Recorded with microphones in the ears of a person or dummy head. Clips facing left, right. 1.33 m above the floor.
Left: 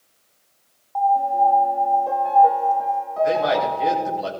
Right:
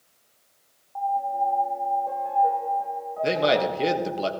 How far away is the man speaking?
About 1.3 m.